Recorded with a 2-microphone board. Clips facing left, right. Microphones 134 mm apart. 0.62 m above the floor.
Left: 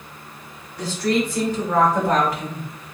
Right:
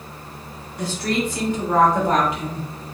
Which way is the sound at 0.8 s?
25° right (ahead or behind).